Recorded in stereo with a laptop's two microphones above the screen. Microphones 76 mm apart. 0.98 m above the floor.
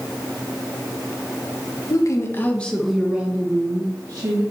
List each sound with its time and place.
1.9 s a woman speaking: 50° left (ahead or behind), 1.3 m; by 4.4 s 45° right (ahead or behind), 2 m